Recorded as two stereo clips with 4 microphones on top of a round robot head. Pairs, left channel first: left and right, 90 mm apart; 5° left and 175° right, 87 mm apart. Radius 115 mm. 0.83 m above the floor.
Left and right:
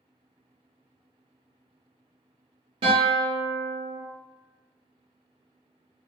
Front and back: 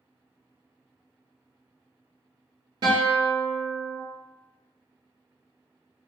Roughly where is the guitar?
Behind right.